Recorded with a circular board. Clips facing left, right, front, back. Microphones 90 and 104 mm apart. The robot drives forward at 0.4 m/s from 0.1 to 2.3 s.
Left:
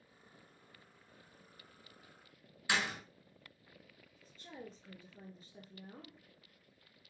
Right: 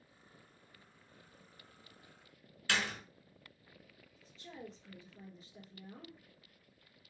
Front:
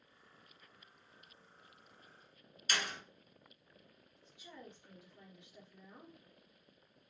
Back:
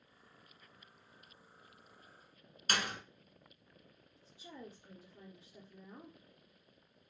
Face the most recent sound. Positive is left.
turn(degrees=130)